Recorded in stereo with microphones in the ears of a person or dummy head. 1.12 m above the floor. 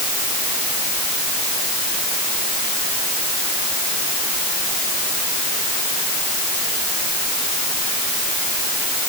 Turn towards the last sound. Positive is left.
No sound to turn to.